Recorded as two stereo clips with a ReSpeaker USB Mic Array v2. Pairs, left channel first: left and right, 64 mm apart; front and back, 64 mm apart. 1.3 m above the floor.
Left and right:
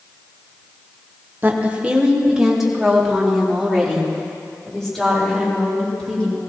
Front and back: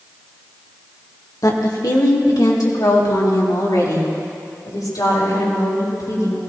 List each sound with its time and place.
1.4 s a woman speaking: 30° right, 1.3 m; by 6.4 s 10° left, 6 m